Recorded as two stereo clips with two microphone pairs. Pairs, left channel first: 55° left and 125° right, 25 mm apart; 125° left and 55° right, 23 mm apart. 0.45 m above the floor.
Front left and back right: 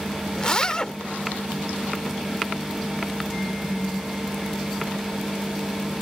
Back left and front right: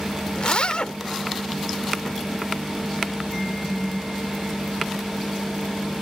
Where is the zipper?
105° left.